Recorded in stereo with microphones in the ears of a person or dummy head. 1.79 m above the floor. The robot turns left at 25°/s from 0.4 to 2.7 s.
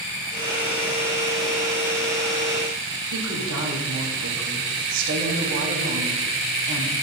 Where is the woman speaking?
65° right (ahead or behind), 1.6 m.